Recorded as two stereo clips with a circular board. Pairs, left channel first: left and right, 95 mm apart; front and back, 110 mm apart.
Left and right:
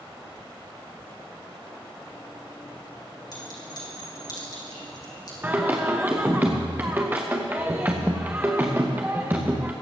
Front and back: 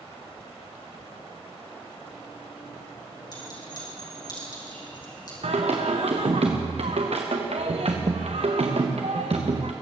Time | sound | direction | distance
3.3 | a clink | 50° left | 4.5 m
5.4 | singing | 160° right | 2 m